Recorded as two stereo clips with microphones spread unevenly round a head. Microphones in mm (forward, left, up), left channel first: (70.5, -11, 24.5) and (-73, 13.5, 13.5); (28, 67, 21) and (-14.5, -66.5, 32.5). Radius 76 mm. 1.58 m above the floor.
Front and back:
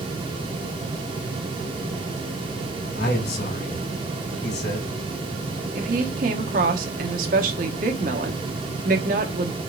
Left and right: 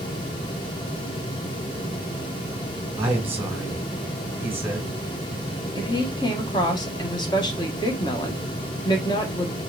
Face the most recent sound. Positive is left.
turn(degrees=135)